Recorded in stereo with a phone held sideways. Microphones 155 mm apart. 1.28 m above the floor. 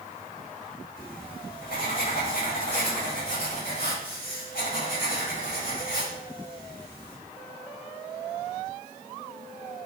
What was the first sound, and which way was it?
Writing, 85° left.